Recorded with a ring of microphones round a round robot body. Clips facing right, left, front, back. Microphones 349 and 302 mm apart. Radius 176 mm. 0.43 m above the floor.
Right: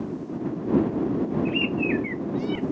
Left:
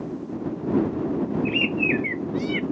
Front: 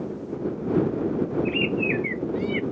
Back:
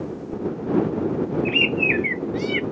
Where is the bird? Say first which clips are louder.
Even, back 1 dB; 155° left.